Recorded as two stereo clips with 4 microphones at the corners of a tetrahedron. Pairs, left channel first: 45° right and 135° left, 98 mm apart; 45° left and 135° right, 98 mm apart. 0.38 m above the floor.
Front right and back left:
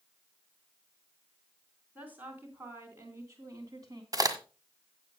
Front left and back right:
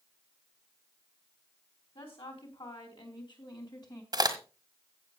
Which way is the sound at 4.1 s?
175° right.